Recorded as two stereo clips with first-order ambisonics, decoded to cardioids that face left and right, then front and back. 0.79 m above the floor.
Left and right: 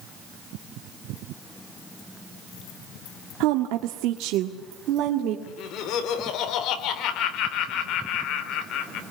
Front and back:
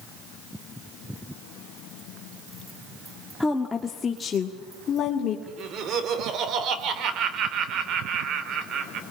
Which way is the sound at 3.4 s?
85° right.